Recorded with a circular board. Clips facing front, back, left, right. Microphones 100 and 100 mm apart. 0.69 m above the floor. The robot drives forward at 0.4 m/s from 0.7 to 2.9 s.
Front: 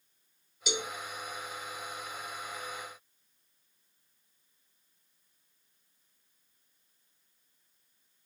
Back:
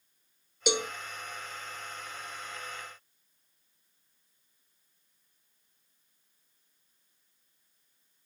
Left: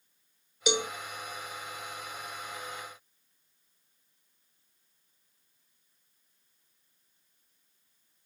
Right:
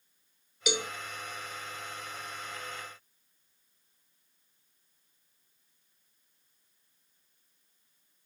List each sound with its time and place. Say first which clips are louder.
0.7 s a cowbell: back 6 dB, left 3 dB; 155° left, 1.3 m